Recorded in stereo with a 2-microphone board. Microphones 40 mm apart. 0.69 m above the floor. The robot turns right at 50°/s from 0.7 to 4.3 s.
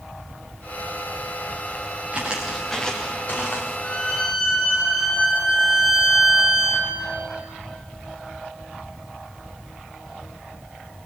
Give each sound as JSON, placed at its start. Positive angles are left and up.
{"t": 2.1, "sound": "footsteps", "side_deg": -30, "distance_m": 5.0}
{"t": 3.8, "sound": "a violin", "side_deg": 50, "distance_m": 9.5}